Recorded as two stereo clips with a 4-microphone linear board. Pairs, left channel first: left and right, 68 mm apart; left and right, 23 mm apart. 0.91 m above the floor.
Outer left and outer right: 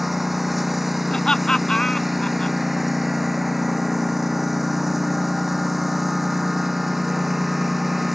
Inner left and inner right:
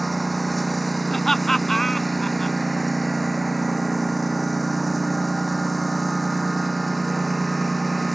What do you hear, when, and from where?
0.0 s a lawn mower: 5° right (ahead or behind)
1.1 s laughter: 10° left (ahead or behind)